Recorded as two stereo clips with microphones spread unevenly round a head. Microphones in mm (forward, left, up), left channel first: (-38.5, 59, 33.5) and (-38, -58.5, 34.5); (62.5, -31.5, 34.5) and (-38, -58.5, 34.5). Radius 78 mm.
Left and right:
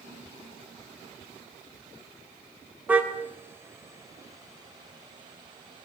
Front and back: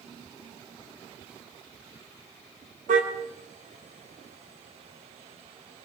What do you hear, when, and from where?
2.9 s a car horn: 170° right, 3 m; by 5.8 s 140° right, 4.5 m